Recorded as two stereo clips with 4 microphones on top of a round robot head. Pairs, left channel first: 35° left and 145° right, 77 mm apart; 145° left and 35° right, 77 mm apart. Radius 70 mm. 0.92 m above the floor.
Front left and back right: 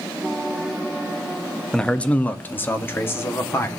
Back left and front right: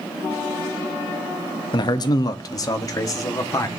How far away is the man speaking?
About 0.9 m.